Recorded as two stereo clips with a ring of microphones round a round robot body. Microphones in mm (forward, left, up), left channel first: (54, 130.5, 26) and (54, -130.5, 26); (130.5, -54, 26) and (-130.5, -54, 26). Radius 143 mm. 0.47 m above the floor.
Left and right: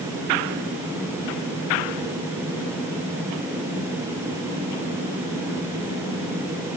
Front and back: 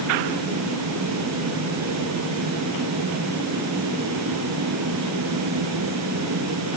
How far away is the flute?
No flute in this recording.